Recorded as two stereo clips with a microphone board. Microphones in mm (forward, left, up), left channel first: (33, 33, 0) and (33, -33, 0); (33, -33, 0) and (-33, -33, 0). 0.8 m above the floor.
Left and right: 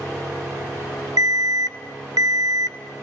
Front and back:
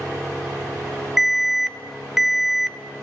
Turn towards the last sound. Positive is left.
turn(degrees=-95)